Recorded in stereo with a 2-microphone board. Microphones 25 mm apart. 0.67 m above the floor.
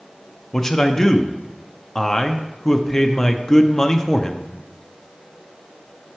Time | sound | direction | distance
0.5 | a man speaking | 20° left (ahead or behind) | 0.5 m